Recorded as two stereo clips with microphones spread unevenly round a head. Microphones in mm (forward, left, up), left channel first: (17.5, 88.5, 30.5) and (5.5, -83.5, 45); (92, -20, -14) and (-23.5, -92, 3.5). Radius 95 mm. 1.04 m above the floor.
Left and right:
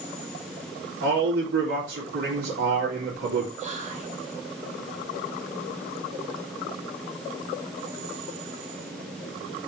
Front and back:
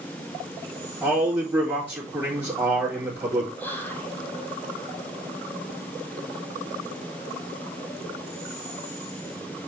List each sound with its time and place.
1.0 s a man speaking: 75° right, 3.5 m
3.6 s whispering: 45° right, 2.5 m